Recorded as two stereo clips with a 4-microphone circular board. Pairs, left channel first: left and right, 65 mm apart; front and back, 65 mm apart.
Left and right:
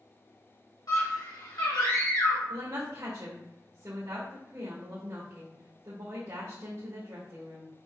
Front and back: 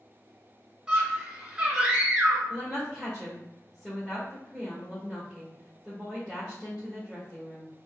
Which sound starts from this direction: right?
A woman speaking, at 2.5 s.